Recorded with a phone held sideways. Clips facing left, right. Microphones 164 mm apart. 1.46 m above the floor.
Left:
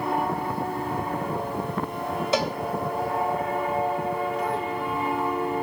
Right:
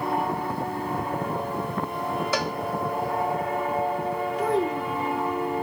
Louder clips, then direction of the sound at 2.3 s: Left 6 dB; 20° left (ahead or behind).